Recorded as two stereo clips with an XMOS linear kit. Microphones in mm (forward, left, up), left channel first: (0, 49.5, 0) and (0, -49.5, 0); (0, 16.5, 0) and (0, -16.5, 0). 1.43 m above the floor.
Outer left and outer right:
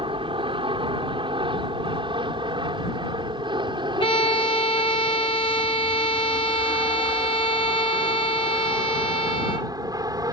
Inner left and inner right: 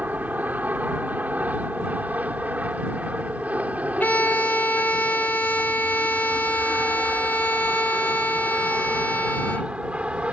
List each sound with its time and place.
0.0 s an aircraft: 60° right (ahead or behind); by 10.3 s 40° right (ahead or behind)
4.0 s a violin: 60° left (ahead or behind)